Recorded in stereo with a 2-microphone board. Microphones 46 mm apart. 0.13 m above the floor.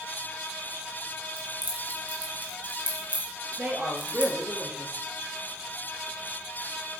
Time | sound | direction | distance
1.4 | keys jangling | 40° right (ahead or behind) | 3 m
3.6 | a woman speaking | 40° right (ahead or behind) | 2 m